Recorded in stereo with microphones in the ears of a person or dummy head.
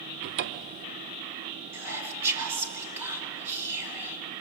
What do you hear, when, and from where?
0.2 s a cupboard door: 65° right (ahead or behind), 1.0 m
1.7 s whispering: 15° right (ahead or behind), 2.5 m